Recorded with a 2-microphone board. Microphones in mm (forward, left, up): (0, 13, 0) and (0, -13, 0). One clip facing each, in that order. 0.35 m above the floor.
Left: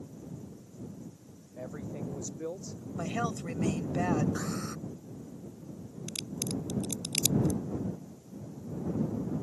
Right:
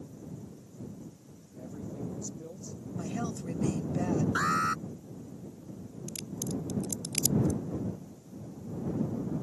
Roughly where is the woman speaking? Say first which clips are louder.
Left 3 dB; left.